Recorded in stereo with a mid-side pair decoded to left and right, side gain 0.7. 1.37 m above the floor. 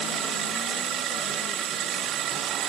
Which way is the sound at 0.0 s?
45° right.